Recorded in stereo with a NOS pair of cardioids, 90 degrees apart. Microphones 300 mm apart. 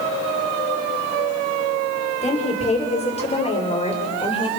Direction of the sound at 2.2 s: 20° left.